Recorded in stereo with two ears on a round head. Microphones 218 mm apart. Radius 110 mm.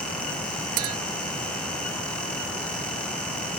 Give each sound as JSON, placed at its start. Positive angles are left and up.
{"t": 0.8, "sound": "a clink", "side_deg": -65}